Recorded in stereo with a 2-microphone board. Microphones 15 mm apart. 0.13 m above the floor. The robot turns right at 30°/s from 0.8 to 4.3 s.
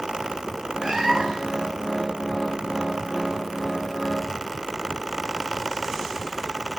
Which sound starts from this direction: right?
A cat meowing, at 0.8 s.